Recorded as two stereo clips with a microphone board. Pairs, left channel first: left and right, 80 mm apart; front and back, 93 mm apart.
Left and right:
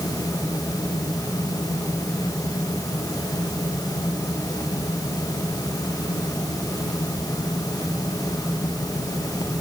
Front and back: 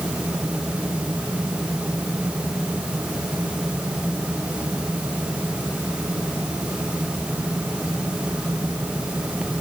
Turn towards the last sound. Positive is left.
No sound to turn to.